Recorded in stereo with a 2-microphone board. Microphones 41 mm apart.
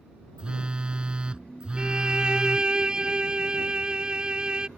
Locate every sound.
0.4 s a phone buzzing: 20° right (ahead or behind)
1.8 s a violin: 20° right (ahead or behind)